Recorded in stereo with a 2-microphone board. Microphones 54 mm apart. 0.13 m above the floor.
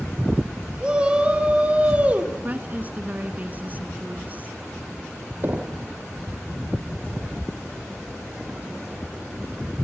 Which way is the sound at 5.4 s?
35° right (ahead or behind).